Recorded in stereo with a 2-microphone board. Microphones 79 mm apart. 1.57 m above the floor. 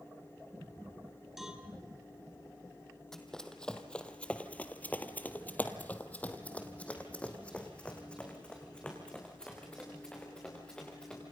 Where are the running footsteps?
5° left (ahead or behind), 2.5 m; by 11.2 s 10° left (ahead or behind), 8 m.